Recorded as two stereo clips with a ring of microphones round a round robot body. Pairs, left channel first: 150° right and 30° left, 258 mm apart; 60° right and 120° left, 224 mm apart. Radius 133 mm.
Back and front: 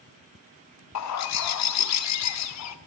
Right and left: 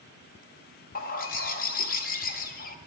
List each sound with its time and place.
0.9 s a bird: 120° right, 0.7 m